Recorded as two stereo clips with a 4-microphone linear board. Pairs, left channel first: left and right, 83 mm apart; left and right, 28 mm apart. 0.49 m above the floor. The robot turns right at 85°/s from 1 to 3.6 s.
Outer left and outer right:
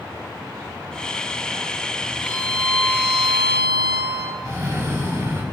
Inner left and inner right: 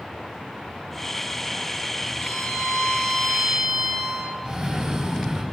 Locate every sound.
2.2 s a violin: 90° left, 3 m; by 4.3 s 150° right, 3 m
4.5 s a cough: 40° right (ahead or behind), 1.2 m